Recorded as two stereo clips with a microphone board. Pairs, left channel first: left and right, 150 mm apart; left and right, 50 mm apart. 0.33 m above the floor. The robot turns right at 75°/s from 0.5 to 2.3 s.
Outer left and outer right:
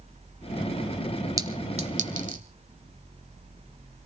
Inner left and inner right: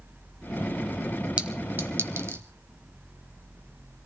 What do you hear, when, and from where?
1.4 s a clink: 20° right (ahead or behind), 1.3 m; by 2.4 s 60° right (ahead or behind), 1.3 m